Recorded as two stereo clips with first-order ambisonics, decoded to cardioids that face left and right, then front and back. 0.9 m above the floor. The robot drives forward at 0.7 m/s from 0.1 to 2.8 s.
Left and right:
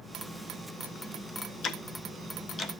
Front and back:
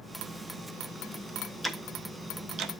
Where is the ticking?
85° left, 0.9 m; by 2.7 s 150° left, 1.1 m.